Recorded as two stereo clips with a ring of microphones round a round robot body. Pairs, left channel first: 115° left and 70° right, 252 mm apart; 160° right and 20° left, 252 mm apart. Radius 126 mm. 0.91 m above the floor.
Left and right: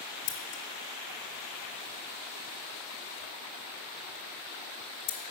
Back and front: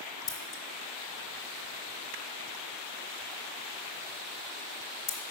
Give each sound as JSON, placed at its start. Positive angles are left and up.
{"t": 0.3, "sound": "scissors", "azimuth_deg": 130, "distance_m": 0.9}